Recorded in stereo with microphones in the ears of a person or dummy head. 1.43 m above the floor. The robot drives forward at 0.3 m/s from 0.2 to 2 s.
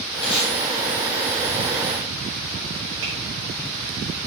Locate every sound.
0.2 s tape being pulled: 65° left (ahead or behind), 3 m
3.0 s tapping: 70° right (ahead or behind), 3 m